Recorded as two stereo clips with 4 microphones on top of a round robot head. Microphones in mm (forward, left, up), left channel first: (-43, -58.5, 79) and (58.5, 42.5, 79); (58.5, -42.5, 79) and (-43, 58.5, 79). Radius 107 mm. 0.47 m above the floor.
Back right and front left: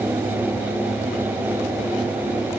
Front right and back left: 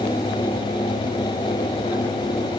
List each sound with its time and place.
Only background noise.